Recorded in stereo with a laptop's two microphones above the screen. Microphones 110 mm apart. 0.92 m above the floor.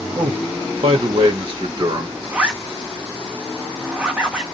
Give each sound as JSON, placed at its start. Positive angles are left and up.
{"t": 0.1, "sound": "a man speaking", "side_deg": -70, "distance_m": 1.3}
{"t": 2.3, "sound": "a zipper", "side_deg": -15, "distance_m": 1.2}